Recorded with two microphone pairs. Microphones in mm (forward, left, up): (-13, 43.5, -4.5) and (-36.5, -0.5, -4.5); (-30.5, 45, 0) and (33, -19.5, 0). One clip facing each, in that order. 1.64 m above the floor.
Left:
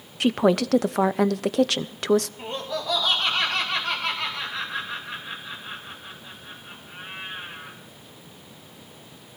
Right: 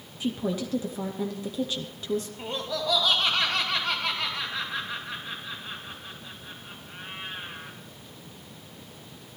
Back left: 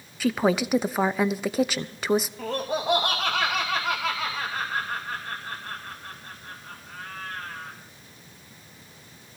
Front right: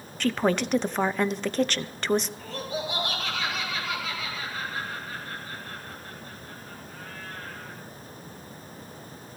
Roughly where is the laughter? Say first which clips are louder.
Left 1 dB, back left 5 dB; behind left.